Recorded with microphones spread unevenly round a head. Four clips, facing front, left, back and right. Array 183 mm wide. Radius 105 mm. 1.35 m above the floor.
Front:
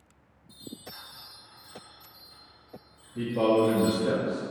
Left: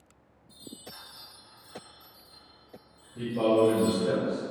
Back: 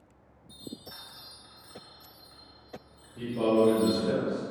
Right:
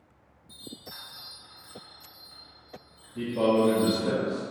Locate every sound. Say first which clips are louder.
0.5 s a chime: right 1 dB, even; 130° right, 1.4 m
3.1 s a man speaking: even, front 1 dB; 25° right, 0.7 m